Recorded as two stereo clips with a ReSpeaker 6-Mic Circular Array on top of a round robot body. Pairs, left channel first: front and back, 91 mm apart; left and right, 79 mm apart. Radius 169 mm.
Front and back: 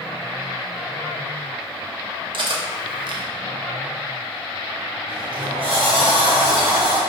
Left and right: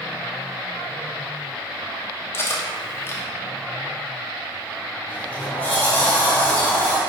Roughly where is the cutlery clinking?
Behind left.